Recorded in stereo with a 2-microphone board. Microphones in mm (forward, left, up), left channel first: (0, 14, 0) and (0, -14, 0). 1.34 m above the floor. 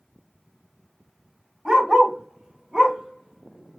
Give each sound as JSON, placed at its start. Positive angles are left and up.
{"t": 1.6, "sound": "a dog barking", "side_deg": -25, "distance_m": 1.5}